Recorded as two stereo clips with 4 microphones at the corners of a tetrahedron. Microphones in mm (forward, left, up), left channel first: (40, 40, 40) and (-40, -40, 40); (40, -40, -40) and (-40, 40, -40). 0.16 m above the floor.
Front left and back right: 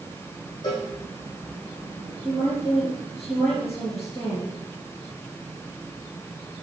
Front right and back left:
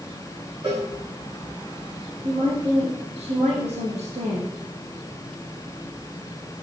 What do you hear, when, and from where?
0.6 s a cowbell: 95° left, 6 m
2.2 s a woman speaking: 110° left, 4.5 m